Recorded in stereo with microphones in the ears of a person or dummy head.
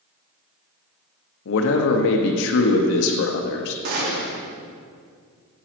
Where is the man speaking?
70° left (ahead or behind), 0.8 m.